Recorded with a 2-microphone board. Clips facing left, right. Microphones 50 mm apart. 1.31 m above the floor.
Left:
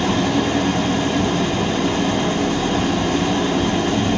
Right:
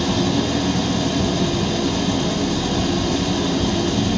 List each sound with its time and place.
0.0 s an engine running: 35° left (ahead or behind), 1.0 m